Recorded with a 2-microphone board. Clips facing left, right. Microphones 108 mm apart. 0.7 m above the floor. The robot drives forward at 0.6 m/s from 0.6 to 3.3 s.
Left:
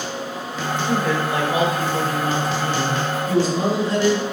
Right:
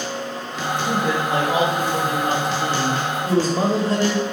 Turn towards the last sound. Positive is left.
turn(degrees=-45)  # may be behind; listen again after turning